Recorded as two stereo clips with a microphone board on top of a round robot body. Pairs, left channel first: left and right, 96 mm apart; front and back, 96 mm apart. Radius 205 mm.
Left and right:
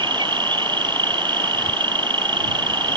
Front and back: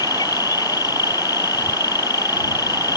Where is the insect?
50° right.